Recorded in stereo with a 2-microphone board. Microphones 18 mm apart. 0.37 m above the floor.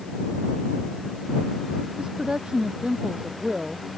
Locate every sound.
2.0 s a woman speaking: 60° right (ahead or behind)